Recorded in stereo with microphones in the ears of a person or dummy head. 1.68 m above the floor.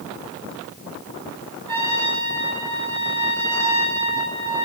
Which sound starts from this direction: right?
A trumpet, at 1.7 s.